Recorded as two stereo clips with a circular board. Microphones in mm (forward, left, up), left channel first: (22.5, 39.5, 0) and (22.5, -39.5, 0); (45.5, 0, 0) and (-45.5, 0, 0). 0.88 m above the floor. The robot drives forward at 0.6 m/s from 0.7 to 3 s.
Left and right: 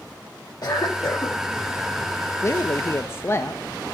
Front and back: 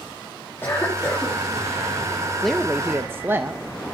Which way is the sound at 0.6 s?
60° left.